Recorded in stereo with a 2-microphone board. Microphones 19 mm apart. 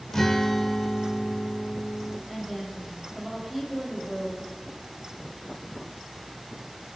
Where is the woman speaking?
10° right (ahead or behind), 1.6 m.